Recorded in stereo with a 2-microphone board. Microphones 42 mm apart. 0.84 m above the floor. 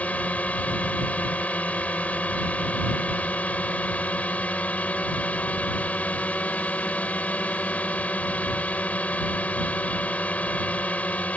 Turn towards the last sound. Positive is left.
turn(degrees=40)  # may be behind; listen again after turning